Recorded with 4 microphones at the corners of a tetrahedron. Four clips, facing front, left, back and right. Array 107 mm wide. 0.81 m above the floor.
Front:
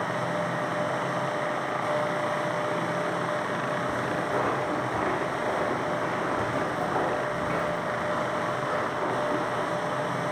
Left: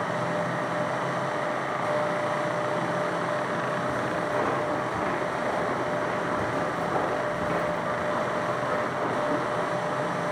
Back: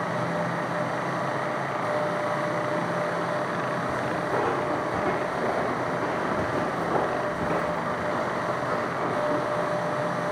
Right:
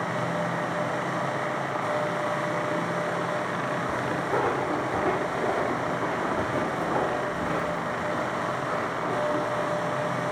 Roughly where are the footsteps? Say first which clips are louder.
Even, back 1 dB; behind right.